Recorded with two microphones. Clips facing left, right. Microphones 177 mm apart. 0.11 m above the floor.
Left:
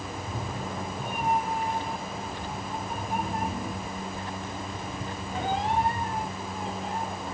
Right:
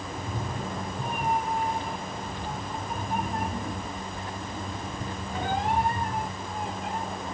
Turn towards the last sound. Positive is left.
turn(degrees=-55)  # may be behind; listen again after turning